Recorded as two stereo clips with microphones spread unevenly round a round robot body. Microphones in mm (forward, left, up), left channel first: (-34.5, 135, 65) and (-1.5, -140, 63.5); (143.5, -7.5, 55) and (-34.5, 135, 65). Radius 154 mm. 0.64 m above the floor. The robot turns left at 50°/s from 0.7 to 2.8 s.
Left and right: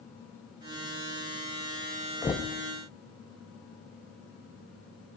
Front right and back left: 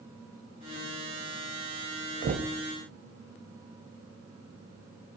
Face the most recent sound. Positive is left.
turn(degrees=145)